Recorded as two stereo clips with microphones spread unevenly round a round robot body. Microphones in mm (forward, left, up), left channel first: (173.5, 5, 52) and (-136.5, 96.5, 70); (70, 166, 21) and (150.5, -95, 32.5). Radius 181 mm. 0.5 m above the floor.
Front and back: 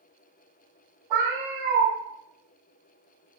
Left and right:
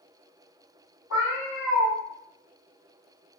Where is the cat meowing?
155° left, 1.7 m.